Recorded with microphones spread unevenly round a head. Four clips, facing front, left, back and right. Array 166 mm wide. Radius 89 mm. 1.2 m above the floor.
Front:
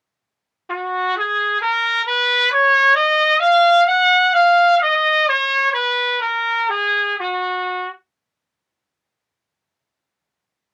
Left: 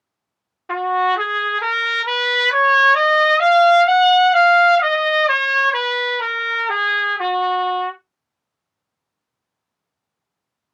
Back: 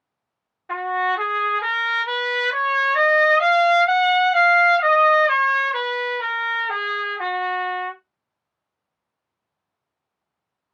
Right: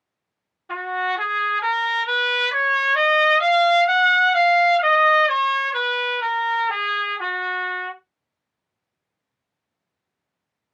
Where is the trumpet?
45° left, 1.0 m.